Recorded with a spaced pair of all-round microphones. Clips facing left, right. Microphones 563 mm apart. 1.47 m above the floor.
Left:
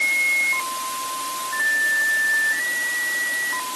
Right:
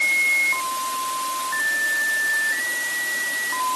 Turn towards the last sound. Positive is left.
No sound to turn to.